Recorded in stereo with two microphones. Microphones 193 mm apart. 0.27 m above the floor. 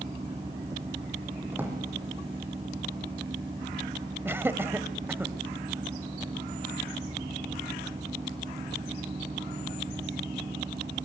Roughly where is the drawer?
Centre.